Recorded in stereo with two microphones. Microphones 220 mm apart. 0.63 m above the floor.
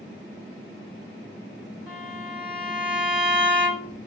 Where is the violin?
25° right (ahead or behind), 1.8 m.